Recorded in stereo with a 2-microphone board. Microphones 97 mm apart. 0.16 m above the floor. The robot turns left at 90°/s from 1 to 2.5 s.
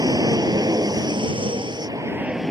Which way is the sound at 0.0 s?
45° right (ahead or behind).